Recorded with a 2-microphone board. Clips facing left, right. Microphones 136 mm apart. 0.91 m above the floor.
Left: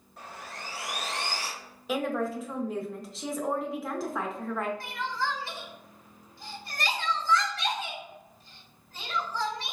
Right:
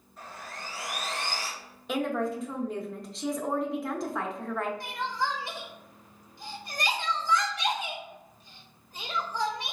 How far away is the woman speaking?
About 0.7 m.